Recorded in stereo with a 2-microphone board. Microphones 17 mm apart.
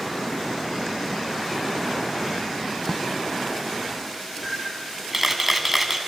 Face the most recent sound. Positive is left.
turn(degrees=-15)  # may be behind; listen again after turning